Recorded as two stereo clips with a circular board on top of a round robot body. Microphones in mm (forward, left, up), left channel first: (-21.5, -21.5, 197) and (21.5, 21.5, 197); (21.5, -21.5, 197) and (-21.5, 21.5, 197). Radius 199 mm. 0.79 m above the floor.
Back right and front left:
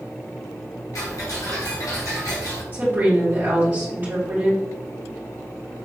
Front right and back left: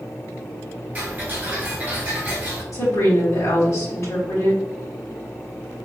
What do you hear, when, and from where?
0.9 s ticking: 160° right, 1.4 m
2.7 s a woman speaking: 5° right, 1.6 m